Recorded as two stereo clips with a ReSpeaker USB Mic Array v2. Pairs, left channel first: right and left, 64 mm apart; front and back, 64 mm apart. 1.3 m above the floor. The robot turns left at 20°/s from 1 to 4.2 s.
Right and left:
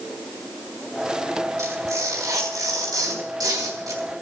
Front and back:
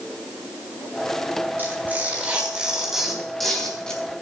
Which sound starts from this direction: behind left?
Tearing paper, at 1.6 s.